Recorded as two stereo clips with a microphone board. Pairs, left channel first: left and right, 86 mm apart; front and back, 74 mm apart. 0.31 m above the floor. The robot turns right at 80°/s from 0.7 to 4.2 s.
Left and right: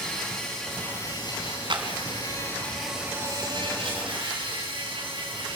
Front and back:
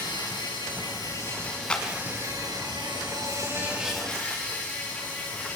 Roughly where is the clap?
Right.